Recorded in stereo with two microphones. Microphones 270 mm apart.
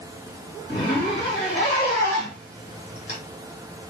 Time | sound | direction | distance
0.7 | a zipper | 40° left (ahead or behind) | 1.5 m